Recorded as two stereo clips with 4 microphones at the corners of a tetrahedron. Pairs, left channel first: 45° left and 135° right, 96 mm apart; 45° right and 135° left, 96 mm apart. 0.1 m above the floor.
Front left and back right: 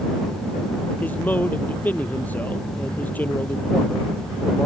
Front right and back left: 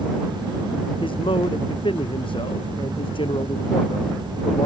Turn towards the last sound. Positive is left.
turn(degrees=-25)